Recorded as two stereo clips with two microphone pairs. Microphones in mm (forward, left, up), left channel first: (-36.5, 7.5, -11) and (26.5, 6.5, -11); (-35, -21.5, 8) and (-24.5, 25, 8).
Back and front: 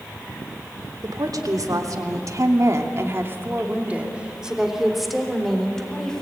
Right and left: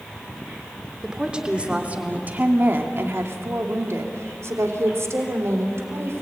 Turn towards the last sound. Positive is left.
turn(degrees=105)